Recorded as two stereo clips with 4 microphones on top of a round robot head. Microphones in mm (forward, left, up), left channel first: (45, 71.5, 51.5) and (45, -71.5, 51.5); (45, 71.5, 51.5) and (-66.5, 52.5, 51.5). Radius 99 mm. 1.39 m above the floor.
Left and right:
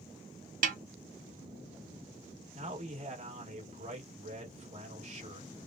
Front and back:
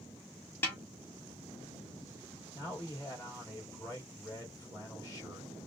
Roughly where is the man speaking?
Ahead right.